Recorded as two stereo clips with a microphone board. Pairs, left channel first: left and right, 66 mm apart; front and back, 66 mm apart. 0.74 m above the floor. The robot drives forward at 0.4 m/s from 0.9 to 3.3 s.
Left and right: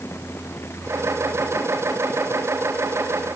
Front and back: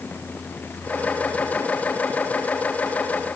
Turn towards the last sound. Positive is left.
No sound to turn to.